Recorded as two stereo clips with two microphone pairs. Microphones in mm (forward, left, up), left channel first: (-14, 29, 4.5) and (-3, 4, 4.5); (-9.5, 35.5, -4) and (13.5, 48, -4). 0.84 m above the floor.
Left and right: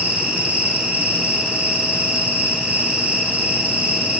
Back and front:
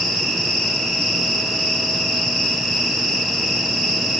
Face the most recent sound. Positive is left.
turn(degrees=-60)